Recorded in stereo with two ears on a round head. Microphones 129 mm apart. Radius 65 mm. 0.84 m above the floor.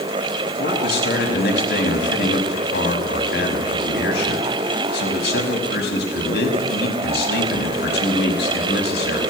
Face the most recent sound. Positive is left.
turn(degrees=80)